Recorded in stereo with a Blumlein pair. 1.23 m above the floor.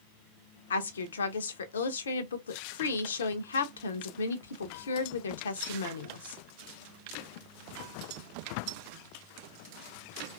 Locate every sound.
0.7 s a woman speaking: 65° left, 0.6 m